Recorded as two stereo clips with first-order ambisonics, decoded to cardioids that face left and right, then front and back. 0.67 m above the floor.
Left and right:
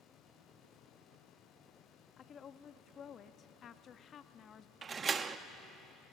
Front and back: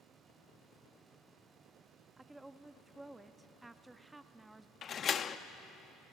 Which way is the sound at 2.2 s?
105° left.